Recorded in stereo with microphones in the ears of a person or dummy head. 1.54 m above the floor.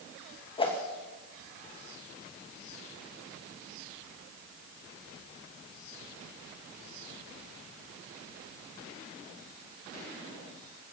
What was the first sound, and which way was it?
A whoosh, 30° left (ahead or behind).